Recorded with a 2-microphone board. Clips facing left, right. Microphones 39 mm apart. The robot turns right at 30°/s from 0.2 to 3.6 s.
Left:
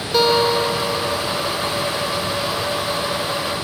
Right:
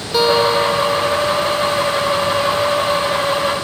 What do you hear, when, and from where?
0.1 s a guitar: 10° right (ahead or behind), 0.9 m; by 1.2 s 5° left (ahead or behind), 0.9 m